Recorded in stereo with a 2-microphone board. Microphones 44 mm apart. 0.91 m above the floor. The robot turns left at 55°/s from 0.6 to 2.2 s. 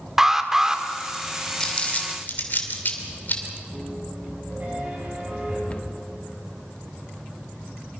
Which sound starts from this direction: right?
A piano, at 3.7 s.